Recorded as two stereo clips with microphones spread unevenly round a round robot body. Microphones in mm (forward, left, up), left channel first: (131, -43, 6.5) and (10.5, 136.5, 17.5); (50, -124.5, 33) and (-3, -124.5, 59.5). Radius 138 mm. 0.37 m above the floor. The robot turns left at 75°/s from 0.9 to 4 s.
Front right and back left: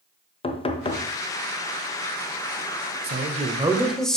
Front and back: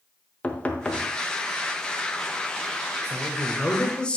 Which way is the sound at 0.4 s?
Straight ahead.